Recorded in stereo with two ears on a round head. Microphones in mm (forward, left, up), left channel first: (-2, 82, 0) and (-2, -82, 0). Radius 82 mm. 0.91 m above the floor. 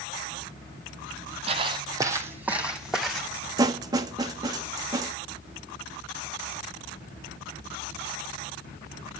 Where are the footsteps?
35° right (ahead or behind), 1.9 m; by 3.3 s centre (ahead or behind), 3.5 m.